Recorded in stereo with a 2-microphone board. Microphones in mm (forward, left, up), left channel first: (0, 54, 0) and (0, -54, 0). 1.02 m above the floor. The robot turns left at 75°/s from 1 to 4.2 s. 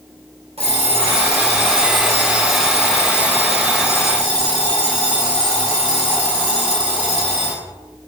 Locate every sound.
0.6 s an alarm clock: 110° right, 3.5 m; by 7.6 s 10° left, 3.5 m